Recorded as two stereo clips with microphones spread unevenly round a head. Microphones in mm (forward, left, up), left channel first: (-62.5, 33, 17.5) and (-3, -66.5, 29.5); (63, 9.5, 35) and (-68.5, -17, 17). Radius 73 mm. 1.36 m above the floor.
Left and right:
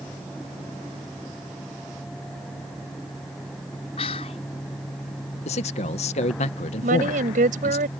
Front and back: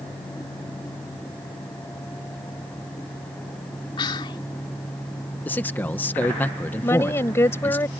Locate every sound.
4.0 s whispering: 70° left
5.5 s a man speaking: 90° left
6.8 s a woman speaking: 60° right